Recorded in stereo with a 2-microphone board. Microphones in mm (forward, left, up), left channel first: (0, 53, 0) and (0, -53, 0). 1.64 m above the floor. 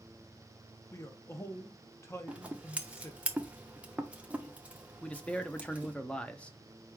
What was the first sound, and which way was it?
A man speaking, 25° left (ahead or behind).